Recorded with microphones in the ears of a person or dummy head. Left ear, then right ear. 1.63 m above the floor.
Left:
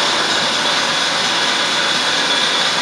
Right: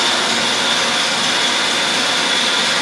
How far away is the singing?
I don't hear singing.